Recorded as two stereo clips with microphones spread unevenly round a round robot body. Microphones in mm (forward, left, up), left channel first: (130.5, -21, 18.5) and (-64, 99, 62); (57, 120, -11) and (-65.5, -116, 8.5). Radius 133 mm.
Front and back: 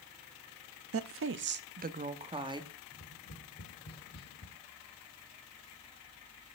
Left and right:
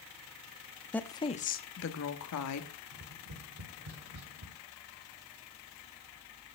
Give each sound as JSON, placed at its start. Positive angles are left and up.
{"t": 0.9, "sound": "a woman speaking", "azimuth_deg": 145, "distance_m": 0.7}
{"t": 2.9, "sound": "tapping", "azimuth_deg": -80, "distance_m": 1.2}